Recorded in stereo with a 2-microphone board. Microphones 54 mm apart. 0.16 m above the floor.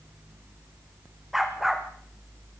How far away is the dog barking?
About 3 m.